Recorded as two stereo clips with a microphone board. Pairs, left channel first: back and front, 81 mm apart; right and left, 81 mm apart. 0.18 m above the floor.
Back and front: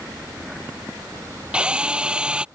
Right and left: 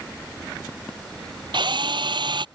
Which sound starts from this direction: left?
A drill, at 1.5 s.